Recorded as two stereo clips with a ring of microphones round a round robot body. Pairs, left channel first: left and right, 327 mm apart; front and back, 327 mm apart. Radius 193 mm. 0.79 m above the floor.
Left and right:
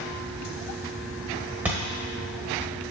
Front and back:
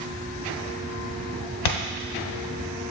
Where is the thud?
5° right, 0.9 m.